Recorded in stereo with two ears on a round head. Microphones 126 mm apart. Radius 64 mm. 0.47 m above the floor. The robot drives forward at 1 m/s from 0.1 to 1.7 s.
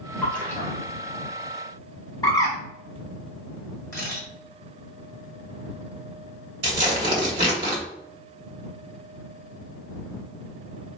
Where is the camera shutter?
25° left (ahead or behind), 1.4 m.